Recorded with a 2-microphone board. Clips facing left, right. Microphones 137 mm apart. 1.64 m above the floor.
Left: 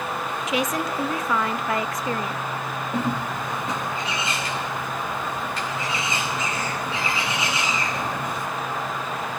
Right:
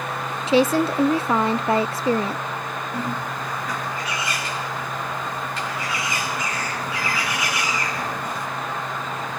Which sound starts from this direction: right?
A woman speaking, at 0.5 s.